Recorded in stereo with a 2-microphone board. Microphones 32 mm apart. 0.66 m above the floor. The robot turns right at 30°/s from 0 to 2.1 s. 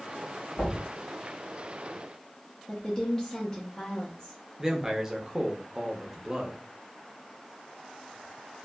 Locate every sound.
0.6 s knocking: 60° left (ahead or behind), 1.6 m
2.7 s a woman speaking: 20° left (ahead or behind), 0.6 m
4.6 s a man speaking: 15° right (ahead or behind), 0.6 m